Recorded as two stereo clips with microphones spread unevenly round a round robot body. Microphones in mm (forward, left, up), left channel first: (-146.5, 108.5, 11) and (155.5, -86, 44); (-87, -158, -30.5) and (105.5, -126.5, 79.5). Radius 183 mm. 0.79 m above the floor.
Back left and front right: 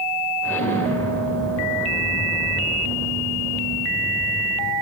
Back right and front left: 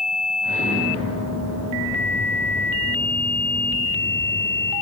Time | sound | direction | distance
0.4 | an explosion | 60° left | 2.0 m